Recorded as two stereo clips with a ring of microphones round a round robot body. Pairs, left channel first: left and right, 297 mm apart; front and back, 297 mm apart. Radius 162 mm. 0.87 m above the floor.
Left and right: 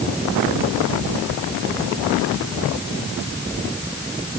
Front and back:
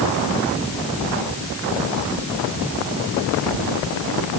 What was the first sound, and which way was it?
Only background noise.